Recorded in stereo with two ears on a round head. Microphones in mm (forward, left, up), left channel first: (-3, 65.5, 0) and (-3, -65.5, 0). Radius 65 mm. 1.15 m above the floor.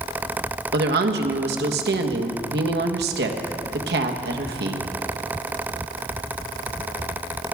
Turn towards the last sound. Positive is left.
turn(degrees=-80)